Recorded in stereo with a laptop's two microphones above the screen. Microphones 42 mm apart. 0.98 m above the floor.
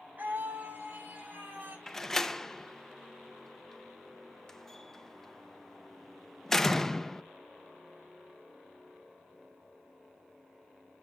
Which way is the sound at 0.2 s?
40° right (ahead or behind).